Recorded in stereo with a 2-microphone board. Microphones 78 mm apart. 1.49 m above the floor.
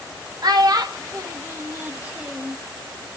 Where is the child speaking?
65° right (ahead or behind), 1.9 m; by 2.6 s centre (ahead or behind), 1.5 m.